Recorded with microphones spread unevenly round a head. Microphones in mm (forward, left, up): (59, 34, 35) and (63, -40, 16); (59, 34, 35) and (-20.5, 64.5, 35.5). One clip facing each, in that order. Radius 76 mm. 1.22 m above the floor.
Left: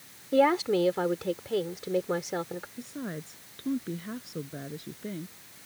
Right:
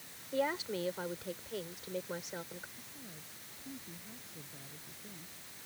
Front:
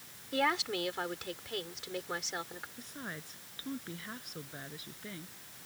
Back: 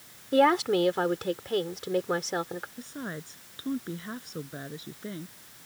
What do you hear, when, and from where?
0.3 s a woman speaking: 120° left
2.8 s a woman speaking: 105° left